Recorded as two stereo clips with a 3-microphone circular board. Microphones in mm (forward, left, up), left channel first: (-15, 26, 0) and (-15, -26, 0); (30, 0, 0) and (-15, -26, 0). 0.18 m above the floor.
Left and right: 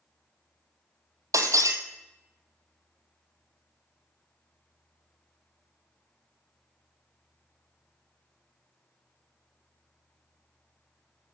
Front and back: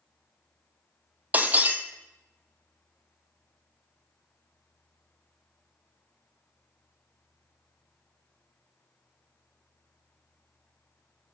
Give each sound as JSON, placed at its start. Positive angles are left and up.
{"t": 1.3, "sound": "breaking glass", "azimuth_deg": -90, "distance_m": 0.8}